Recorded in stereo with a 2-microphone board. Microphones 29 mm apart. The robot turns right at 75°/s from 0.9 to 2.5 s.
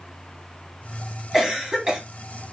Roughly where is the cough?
Centre.